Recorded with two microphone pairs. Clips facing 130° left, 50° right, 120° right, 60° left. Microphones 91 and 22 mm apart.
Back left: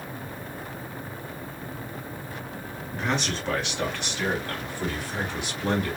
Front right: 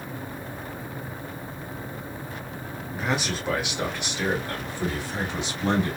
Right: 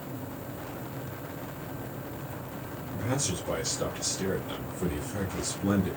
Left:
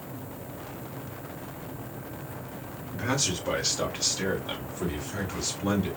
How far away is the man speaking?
About 1.5 m.